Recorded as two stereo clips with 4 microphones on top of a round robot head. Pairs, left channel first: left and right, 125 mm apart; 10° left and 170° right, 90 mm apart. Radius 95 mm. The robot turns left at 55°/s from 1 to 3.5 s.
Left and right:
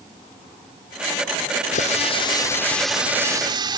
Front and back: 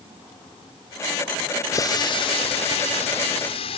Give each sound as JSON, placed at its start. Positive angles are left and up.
{"t": 1.7, "sound": "a running tap", "azimuth_deg": 65}